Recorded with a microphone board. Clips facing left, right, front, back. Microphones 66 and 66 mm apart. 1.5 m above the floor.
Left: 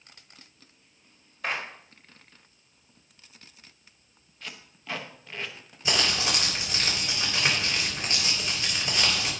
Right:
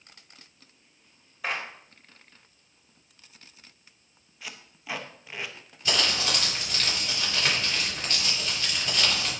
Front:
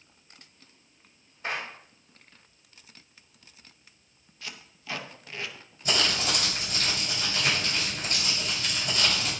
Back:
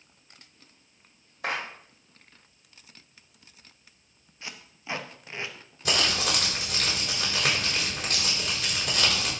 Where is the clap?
175° right, 1.9 m.